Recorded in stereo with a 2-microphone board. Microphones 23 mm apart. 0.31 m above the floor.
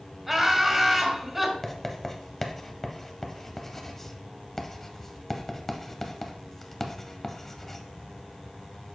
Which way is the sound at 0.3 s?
15° right (ahead or behind).